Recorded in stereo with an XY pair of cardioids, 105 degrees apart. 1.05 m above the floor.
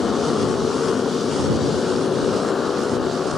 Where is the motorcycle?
35° left.